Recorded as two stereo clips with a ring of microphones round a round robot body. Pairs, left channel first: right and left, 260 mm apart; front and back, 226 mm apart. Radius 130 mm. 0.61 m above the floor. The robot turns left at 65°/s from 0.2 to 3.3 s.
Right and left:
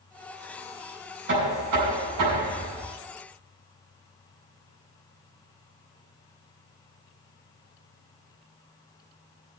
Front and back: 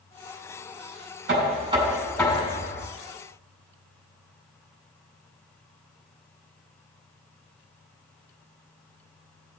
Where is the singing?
I don't hear singing.